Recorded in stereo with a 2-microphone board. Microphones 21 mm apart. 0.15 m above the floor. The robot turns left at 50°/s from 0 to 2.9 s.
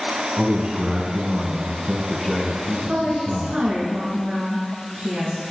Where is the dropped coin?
No dropped coin in this recording.